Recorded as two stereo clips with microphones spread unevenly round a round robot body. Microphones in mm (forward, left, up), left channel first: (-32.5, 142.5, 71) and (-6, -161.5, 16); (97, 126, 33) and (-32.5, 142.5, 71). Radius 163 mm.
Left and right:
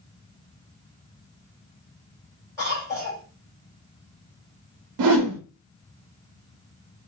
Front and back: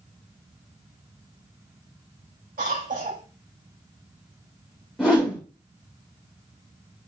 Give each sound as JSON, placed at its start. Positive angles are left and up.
{"t": 2.6, "sound": "a cough", "azimuth_deg": 175, "distance_m": 4.0}
{"t": 5.0, "sound": "a whoosh", "azimuth_deg": -95, "distance_m": 1.0}